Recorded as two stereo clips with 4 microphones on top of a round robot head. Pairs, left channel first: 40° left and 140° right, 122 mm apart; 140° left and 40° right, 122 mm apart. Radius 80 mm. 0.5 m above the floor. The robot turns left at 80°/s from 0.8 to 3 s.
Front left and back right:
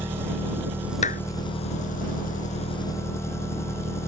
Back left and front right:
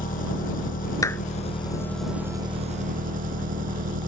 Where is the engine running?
150° left; by 4.1 s 30° right.